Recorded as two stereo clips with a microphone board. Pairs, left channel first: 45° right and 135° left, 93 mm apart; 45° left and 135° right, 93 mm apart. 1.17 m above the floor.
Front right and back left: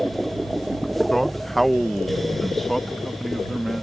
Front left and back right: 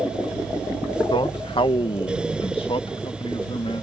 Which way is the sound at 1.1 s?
40° left.